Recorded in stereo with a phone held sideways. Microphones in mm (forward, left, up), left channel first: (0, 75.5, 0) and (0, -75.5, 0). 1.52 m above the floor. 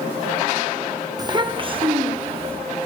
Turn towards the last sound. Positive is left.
turn(degrees=-40)  # may be behind; listen again after turning